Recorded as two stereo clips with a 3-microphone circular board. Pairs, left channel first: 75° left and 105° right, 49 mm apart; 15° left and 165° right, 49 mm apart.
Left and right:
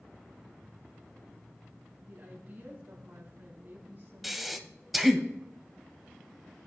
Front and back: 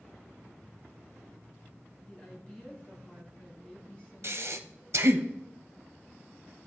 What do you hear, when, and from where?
2.1 s a woman speaking: 50° right, 3.5 m
4.2 s breathing: 170° left, 0.7 m